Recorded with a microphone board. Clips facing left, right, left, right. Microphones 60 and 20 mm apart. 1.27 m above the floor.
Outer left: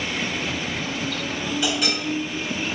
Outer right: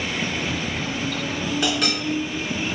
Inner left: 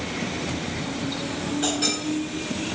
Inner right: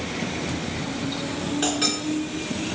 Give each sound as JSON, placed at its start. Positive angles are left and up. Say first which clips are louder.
{"t": 1.6, "sound": "a clink", "louder": "outer right 1 dB, inner right 1 dB", "side_deg": -60, "distance_m": 1.9}